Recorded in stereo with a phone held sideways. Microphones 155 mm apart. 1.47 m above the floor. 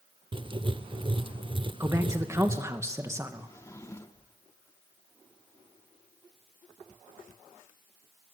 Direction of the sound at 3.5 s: 20° left (ahead or behind).